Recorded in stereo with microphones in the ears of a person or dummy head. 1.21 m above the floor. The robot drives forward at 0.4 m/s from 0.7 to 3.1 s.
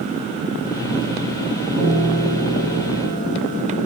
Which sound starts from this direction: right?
A piano, at 1.8 s.